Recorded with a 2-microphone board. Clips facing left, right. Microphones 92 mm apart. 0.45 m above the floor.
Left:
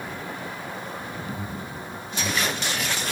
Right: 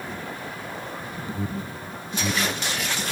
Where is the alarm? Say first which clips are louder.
Right 2 dB; 35° right (ahead or behind).